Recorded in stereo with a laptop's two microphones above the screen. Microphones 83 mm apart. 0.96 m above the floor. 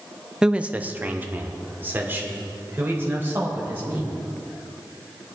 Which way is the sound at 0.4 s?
10° right (ahead or behind).